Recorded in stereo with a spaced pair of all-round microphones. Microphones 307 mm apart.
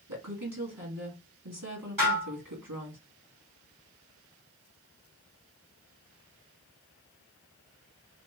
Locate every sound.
0.1 s a woman speaking: 80° right, 2 m
2.0 s dishes clattering: 80° right, 2.5 m